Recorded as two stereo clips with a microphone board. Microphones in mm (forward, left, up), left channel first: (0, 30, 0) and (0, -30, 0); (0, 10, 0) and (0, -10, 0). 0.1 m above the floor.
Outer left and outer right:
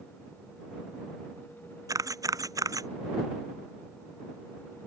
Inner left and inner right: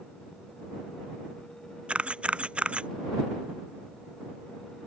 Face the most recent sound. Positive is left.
turn(degrees=-80)